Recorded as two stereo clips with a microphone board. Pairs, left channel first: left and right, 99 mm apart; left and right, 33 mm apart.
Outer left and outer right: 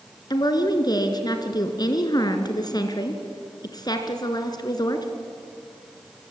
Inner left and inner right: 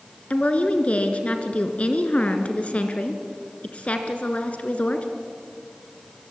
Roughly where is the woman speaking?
Left.